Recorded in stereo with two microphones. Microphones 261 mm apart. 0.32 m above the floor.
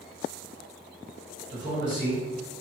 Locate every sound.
1.5 s a man speaking: 45° right (ahead or behind), 1.6 m